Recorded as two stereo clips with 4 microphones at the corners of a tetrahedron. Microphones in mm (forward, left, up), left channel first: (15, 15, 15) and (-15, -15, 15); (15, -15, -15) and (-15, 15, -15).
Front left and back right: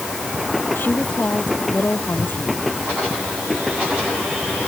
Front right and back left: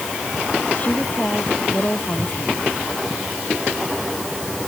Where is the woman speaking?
5° left.